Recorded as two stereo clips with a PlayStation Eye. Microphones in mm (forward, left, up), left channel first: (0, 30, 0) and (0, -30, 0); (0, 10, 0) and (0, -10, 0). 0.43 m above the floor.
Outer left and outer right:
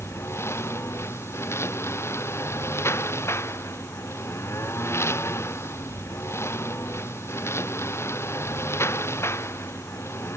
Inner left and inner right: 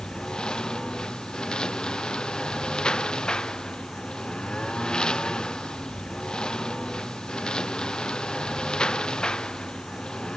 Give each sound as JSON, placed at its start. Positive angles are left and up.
{"t": 0.0, "sound": "a lawn mower", "side_deg": 45}